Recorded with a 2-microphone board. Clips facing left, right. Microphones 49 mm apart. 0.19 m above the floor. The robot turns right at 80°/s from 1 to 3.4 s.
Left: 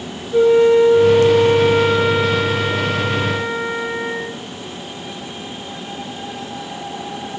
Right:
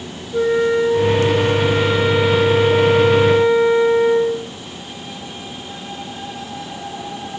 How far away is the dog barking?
No dog barking in this recording.